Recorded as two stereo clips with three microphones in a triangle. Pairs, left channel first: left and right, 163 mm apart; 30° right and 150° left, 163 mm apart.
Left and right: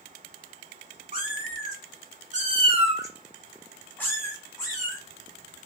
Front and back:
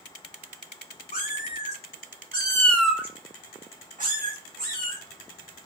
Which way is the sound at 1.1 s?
60° right.